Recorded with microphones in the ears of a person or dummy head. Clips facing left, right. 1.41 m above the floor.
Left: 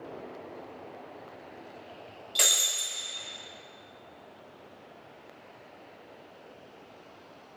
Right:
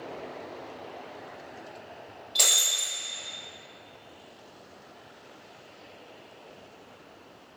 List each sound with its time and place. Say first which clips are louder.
2.4 s breaking glass: even; 10° left (ahead or behind), 0.6 m